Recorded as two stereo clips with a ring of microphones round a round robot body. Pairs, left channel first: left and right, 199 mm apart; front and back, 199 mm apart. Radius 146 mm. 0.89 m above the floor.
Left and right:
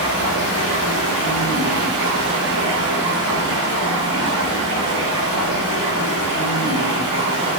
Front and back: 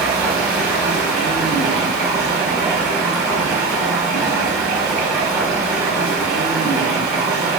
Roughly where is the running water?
Behind right.